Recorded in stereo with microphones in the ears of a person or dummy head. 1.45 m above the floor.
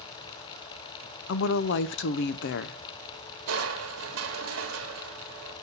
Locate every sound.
1.3 s a woman speaking: 60° left (ahead or behind), 0.6 m
3.5 s crushing: 70° right (ahead or behind), 1.3 m